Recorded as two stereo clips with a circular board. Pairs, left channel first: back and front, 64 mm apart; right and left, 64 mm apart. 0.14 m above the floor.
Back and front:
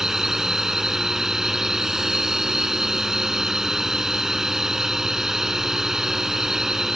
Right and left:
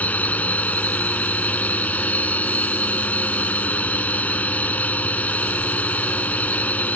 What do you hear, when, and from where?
0.0 s a drone: 75° right